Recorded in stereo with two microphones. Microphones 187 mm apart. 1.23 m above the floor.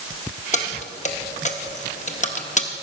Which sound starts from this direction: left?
Keys jangling, at 0.5 s.